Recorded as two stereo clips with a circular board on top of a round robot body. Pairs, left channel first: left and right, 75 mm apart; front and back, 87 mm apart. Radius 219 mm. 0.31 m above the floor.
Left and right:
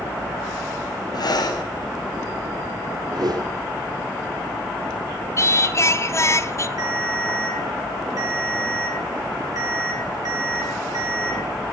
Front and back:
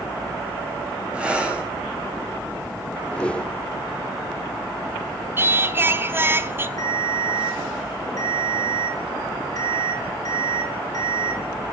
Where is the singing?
125° left, 1.1 m.